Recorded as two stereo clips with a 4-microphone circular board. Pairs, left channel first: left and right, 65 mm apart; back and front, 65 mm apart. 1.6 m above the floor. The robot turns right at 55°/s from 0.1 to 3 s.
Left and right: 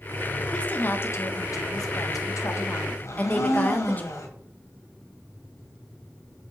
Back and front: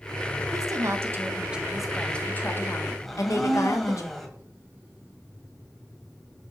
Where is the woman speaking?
15° left, 1.4 m; by 4.0 s 150° left, 1.4 m.